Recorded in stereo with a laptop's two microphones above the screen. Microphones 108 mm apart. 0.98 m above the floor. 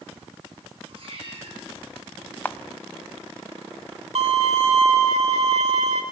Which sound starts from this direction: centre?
A camera shutter, at 2.5 s.